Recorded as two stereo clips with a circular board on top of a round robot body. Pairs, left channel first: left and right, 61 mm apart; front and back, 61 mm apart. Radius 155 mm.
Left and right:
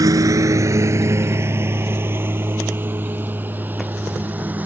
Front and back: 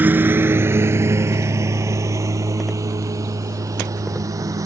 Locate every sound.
0.0 s a lawn mower: 120° right; by 4.7 s 155° right